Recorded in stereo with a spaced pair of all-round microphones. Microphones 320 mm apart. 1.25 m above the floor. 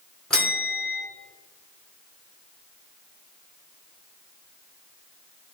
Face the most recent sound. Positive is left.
turn(degrees=0)  # may be behind; listen again after turning